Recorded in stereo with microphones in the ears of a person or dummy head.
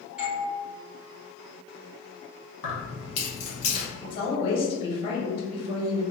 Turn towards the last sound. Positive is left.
turn(degrees=35)  # may be behind; listen again after turning